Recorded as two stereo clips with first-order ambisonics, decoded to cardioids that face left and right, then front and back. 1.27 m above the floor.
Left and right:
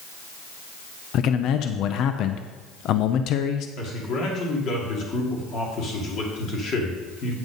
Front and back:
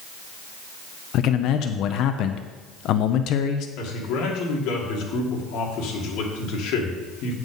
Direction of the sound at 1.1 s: 45° left.